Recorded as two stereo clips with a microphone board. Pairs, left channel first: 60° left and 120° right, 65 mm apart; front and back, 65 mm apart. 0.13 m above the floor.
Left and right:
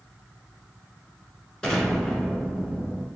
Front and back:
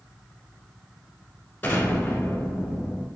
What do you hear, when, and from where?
1.6 s an explosion: 10° right, 1.3 m